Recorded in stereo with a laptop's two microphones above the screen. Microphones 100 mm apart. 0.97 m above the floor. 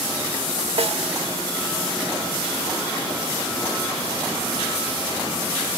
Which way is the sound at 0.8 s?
70° right (ahead or behind).